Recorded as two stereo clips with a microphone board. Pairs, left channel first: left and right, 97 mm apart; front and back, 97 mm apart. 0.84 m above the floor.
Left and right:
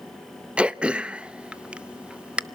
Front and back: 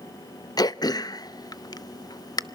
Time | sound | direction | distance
0.6 | throat clearing | 15° right | 0.7 m